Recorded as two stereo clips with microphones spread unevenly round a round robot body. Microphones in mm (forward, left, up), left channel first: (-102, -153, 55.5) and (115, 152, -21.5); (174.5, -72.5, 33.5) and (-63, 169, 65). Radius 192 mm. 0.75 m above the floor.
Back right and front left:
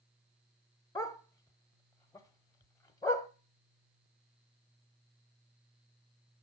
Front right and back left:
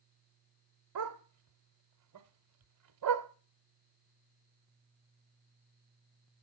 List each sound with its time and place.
0.9 s a dog barking: 165° left, 0.7 m